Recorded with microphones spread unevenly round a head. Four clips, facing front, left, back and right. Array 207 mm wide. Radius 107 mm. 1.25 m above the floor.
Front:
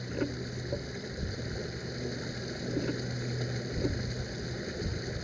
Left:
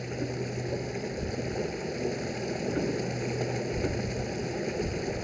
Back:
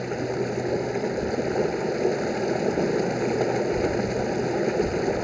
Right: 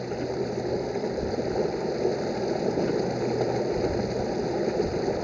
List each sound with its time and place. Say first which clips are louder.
0.0 s running water: right 5 dB, back 8 dB; 145° right